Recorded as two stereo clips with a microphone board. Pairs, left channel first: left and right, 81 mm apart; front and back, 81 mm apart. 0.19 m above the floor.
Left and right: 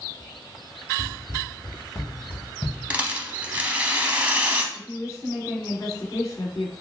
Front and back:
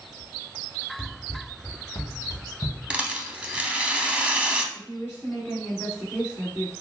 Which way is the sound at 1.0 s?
60° left.